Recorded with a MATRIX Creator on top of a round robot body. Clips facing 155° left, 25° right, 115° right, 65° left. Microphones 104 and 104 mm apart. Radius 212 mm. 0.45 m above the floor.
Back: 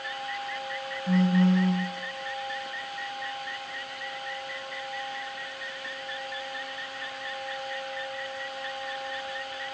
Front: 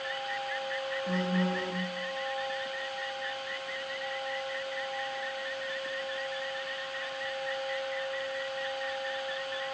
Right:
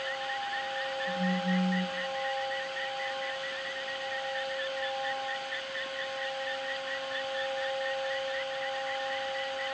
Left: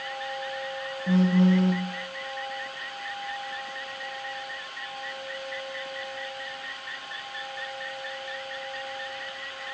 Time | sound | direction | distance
1.1 | a phone buzzing | 70° left | 1.0 m